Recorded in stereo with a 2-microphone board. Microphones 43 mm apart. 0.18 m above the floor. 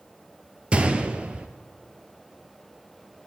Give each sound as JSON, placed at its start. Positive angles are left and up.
{"t": 0.7, "sound": "a gunshot", "side_deg": -30, "distance_m": 0.7}